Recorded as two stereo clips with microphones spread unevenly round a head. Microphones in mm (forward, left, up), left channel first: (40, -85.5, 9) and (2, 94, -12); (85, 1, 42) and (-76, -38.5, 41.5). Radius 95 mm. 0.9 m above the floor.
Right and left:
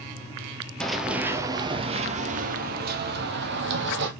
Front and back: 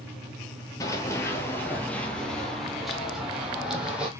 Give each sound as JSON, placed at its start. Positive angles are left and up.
{"t": 0.8, "sound": "running footsteps", "azimuth_deg": -20, "distance_m": 0.9}